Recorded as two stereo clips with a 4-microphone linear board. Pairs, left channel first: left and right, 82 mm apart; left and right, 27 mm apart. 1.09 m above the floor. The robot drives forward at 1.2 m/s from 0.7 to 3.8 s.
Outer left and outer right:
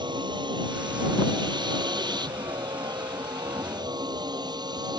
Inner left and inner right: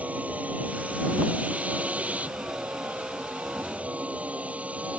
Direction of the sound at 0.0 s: 65° right (ahead or behind).